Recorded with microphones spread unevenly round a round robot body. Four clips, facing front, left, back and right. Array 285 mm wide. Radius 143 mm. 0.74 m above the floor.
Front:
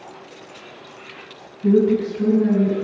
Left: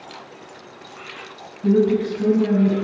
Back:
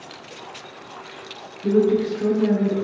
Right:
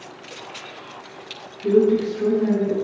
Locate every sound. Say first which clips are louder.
1.6 s a woman speaking: right 1 dB, front 2 dB; 35° left, 6.5 m; by 2.8 s 40° left, 6 m